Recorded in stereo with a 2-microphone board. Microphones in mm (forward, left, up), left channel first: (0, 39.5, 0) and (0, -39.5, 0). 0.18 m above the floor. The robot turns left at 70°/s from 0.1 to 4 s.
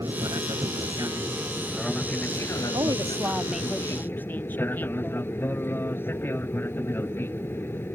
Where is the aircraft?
55° right; by 8.0 s 30° left.